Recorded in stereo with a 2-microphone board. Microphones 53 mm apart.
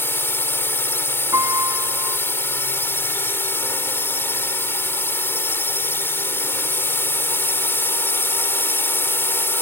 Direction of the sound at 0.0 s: 45° left (ahead or behind).